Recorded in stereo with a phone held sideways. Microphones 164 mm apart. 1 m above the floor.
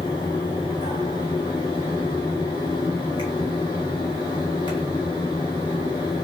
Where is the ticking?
40° left (ahead or behind), 2.5 m.